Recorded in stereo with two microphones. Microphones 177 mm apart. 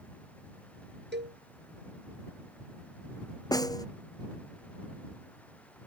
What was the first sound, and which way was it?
A cowbell, 75° right (ahead or behind).